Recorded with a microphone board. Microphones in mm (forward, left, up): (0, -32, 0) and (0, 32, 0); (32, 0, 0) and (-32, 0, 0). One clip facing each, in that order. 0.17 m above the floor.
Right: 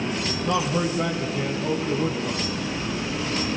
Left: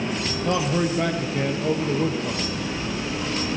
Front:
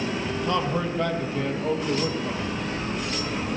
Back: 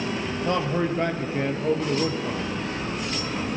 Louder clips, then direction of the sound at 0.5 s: Left 1 dB, back 2 dB; 125° left.